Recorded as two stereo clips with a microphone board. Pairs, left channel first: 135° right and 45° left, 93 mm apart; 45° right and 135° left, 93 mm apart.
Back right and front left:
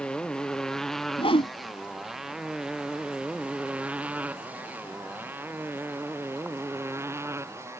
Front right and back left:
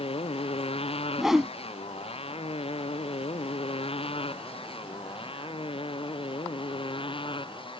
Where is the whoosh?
140° right.